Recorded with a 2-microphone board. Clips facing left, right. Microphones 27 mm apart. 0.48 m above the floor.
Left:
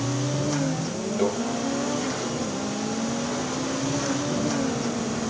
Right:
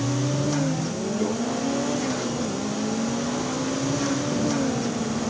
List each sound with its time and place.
1.2 s a microwave: 55° left (ahead or behind), 2.5 m